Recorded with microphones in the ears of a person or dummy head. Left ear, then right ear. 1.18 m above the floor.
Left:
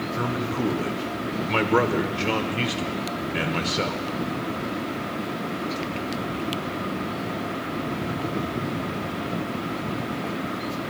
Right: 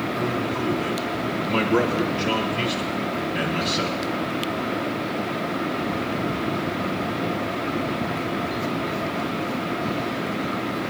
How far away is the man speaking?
About 1.4 m.